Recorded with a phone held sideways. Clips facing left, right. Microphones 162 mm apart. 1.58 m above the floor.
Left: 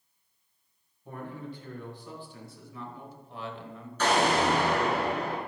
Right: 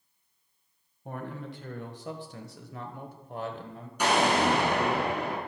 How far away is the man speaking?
About 1.7 m.